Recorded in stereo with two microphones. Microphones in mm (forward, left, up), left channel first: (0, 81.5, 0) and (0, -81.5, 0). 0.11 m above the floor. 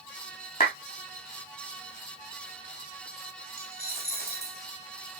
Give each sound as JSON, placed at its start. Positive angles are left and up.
{"t": 0.6, "sound": "a clap", "side_deg": 65, "distance_m": 6.5}
{"t": 3.6, "sound": "a dropped coin", "side_deg": 75, "distance_m": 3.0}